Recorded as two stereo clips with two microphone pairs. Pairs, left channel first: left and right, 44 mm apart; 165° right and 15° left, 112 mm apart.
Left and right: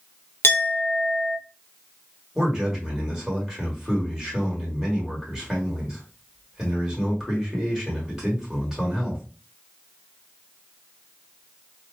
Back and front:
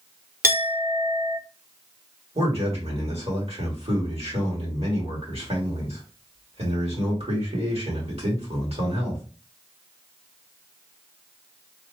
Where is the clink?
85° left, 0.9 m.